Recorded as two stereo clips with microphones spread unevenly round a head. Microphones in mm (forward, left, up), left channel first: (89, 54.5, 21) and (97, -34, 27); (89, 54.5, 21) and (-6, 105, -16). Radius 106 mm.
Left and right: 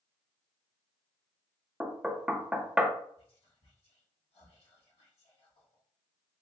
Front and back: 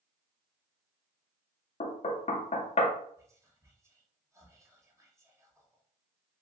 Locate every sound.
1.8 s knocking: 5° right, 0.5 m
3.2 s whispering: 85° left, 1.2 m